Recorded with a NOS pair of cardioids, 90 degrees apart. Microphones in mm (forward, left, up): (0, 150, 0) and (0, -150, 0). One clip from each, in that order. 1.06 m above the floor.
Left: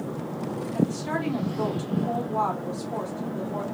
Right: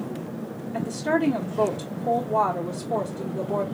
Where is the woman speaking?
55° right, 1.6 m.